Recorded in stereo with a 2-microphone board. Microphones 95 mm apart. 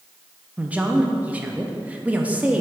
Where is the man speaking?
15° right (ahead or behind), 0.5 m.